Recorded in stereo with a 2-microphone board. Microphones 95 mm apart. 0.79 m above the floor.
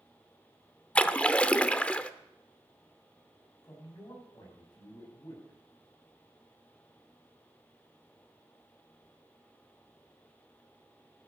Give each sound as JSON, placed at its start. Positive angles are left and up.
{"t": 0.9, "sound": "a splash", "side_deg": 15, "distance_m": 0.7}
{"t": 3.6, "sound": "a man speaking", "side_deg": 40, "distance_m": 6.5}